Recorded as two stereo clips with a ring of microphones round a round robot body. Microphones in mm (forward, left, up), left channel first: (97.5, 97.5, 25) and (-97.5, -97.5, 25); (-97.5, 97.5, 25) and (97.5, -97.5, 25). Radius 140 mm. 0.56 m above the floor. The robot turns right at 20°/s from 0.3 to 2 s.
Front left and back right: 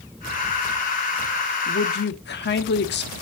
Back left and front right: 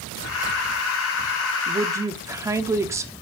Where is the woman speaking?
20° left, 1.3 m; by 3.1 s 30° left, 1.3 m.